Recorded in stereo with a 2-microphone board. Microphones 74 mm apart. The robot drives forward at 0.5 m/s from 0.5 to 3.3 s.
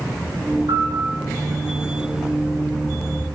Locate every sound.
0.7 s a piano: 75° right (ahead or behind), 5 m; by 1.2 s 80° right, 5 m